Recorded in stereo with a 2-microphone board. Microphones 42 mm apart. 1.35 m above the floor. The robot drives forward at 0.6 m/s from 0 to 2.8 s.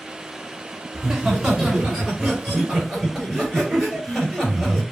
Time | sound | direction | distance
0.9 | laughter | 15° right (ahead or behind) | 2.5 m